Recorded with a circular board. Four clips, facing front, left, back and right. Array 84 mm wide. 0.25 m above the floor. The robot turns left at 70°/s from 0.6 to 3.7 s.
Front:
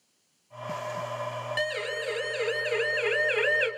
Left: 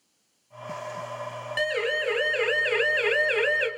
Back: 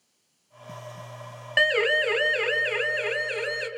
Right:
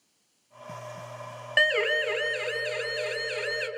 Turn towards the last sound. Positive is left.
turn(degrees=30)